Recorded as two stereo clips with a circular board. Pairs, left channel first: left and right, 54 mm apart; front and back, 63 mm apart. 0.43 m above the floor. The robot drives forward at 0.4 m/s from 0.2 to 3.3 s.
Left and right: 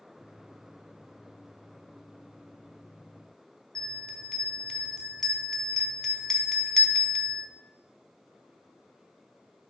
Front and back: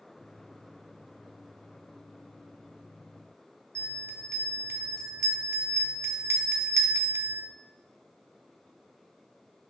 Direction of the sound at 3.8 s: 170° left.